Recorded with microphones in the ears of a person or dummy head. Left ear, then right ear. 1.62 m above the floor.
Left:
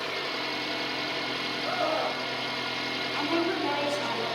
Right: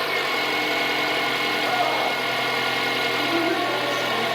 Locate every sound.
0.0 s an engine running: 20° right (ahead or behind), 1.0 m
1.6 s a scream: centre (ahead or behind), 1.8 m
3.1 s a woman speaking: 25° left (ahead or behind), 6.5 m